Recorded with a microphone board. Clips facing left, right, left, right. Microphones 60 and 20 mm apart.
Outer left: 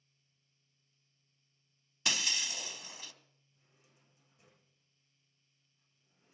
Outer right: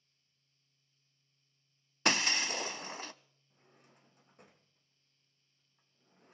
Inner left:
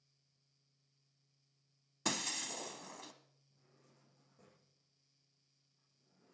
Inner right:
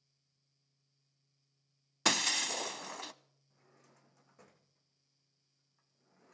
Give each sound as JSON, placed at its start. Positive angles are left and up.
{"t": 2.0, "sound": "breaking glass", "side_deg": -50, "distance_m": 0.5}
{"t": 3.5, "sound": "a drawer", "side_deg": -60, "distance_m": 2.5}